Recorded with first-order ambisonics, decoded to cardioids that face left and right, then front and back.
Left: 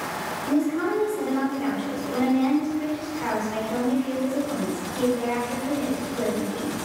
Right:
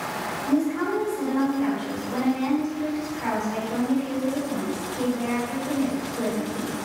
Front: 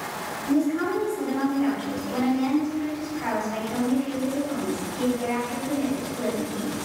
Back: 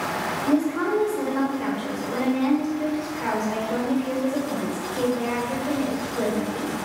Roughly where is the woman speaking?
Behind.